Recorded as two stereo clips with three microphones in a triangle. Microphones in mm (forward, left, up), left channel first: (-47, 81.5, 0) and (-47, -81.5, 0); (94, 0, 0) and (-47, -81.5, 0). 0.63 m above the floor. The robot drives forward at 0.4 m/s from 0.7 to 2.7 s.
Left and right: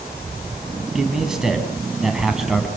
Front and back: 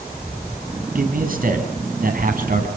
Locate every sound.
0.9 s a man speaking: 175° right, 5.5 m